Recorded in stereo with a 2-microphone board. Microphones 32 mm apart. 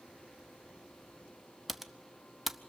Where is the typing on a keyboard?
5° right (ahead or behind), 0.7 m.